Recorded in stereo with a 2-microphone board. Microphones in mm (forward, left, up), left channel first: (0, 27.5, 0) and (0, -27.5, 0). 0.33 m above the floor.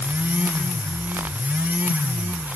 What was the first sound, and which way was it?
Only background noise.